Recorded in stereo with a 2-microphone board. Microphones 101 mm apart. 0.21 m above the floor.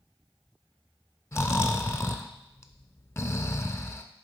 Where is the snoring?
30° left (ahead or behind), 0.5 m.